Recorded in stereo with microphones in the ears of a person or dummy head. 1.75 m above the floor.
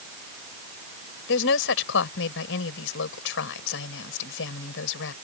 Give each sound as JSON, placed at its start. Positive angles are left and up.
{"t": 1.3, "sound": "a woman speaking", "side_deg": 75}